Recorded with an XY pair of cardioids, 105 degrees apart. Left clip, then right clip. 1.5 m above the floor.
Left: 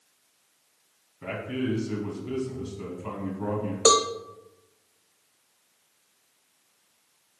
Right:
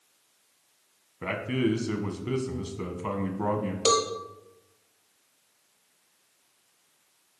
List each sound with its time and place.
1.2 s a man speaking: 65° right, 1.4 m
3.9 s a cowbell: 50° left, 0.7 m